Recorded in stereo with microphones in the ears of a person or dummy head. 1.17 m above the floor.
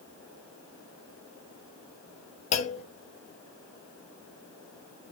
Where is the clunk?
40° left (ahead or behind), 0.6 m.